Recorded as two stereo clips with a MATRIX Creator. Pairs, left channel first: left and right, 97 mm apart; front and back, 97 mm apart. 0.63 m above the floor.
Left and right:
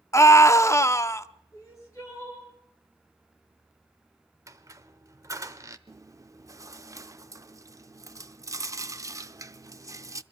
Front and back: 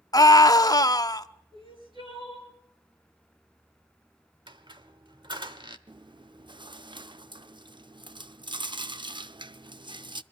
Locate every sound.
0.1 s a scream: 40° left, 0.9 m
1.5 s crying: 150° left, 7.5 m
4.5 s a squeak: 145° right, 1.1 m
5.9 s chewing: 145° right, 0.5 m